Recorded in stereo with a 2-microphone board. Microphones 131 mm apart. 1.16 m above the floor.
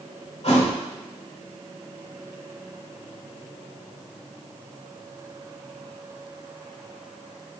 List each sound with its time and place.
0.4 s a thud: 60° left (ahead or behind), 1.9 m